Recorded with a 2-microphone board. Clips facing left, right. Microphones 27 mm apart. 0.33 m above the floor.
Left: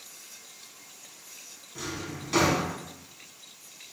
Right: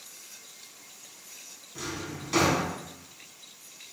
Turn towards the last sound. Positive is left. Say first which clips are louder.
# even
turn(degrees=0)  # may be behind; listen again after turning